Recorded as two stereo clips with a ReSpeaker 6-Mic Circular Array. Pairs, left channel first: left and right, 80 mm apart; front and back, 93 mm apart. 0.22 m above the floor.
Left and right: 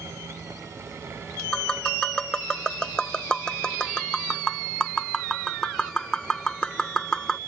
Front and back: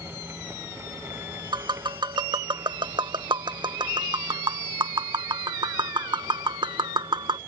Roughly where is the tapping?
Behind.